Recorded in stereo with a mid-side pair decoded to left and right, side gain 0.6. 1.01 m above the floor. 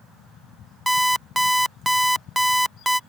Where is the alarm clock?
5° right.